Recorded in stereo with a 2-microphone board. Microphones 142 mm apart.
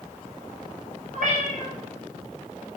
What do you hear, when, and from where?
1.1 s a cat meowing: 65° right (ahead or behind), 0.6 m